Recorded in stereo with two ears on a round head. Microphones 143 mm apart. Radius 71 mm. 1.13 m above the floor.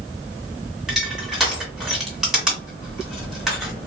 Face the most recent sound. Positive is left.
turn(degrees=-5)  # may be behind; listen again after turning